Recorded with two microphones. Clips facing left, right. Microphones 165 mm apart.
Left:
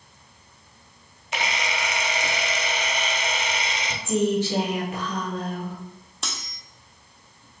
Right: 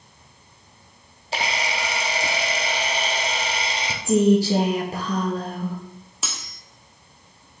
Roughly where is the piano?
No piano in this recording.